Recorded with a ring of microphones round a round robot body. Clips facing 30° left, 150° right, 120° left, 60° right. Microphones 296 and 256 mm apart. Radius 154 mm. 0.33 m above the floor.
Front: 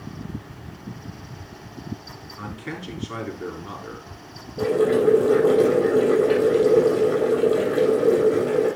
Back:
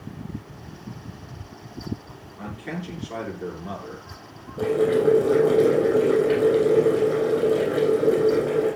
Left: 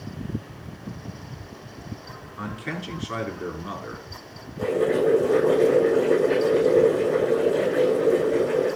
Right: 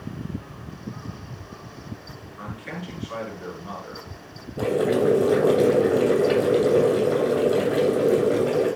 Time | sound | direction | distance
2.4 | a man speaking | 95° left | 6 m
4.6 | boiling | 55° right | 7 m